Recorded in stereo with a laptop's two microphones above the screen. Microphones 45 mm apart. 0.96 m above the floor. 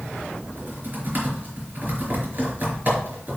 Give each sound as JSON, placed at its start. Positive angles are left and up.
{"t": 0.5, "sound": "typing on a keyboard", "side_deg": -40, "distance_m": 4.5}